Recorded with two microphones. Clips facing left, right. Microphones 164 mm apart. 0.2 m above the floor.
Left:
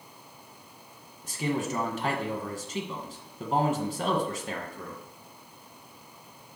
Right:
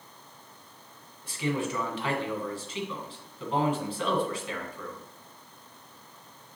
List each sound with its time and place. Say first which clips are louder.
1.2 s a man speaking: even; 45° left (ahead or behind), 1.7 m